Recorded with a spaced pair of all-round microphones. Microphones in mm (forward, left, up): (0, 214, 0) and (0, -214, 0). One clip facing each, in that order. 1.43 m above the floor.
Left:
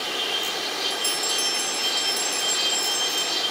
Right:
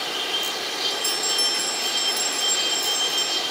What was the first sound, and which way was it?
A bell, 45° left (ahead or behind).